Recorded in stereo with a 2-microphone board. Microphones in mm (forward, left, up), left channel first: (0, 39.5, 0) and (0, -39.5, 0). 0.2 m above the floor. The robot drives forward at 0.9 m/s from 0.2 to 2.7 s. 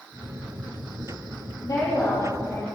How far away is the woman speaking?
About 6 m.